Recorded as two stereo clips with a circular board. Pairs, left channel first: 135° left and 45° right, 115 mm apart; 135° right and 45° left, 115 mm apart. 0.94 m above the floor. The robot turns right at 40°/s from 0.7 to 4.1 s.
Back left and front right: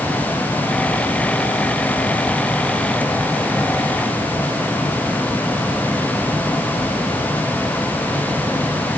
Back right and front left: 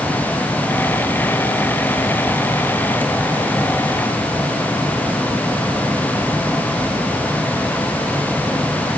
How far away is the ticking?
No ticking in this recording.